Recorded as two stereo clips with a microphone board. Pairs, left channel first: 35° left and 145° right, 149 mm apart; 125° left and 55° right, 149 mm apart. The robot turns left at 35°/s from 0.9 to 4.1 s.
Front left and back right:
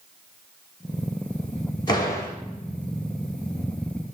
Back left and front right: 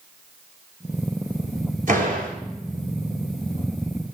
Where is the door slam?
25° right, 3 m; by 2.4 s 45° right, 3 m.